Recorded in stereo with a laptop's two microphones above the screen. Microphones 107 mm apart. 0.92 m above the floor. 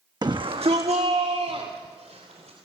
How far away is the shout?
About 0.9 m.